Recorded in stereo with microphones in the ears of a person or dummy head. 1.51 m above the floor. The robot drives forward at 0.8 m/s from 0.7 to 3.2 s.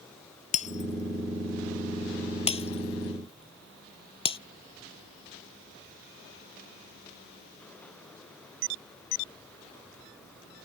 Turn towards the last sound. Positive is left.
turn(degrees=30)  # may be behind; listen again after turning